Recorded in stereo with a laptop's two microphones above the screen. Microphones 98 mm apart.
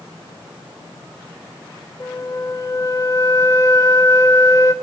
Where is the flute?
30° left (ahead or behind), 0.5 m.